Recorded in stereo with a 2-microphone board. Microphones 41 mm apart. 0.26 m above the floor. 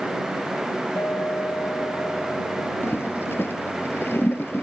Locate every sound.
1.0 s a clink: 80° left
2.8 s a toilet flushing: 65° left (ahead or behind)